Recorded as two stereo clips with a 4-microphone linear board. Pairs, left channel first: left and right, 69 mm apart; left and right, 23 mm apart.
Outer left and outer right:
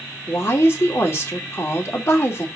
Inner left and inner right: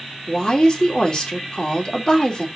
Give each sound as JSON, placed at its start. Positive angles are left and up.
{"t": 0.3, "sound": "a woman speaking", "side_deg": 35, "distance_m": 2.5}